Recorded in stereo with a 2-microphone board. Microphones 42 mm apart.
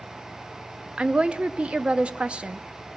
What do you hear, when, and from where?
1.0 s a woman speaking: 30° right (ahead or behind), 0.8 m